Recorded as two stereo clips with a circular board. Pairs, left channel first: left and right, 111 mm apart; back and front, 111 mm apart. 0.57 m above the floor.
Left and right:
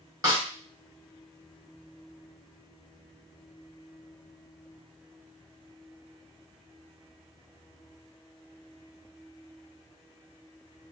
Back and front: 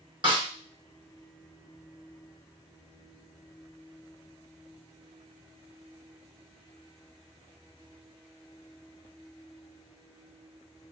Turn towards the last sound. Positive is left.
turn(degrees=-40)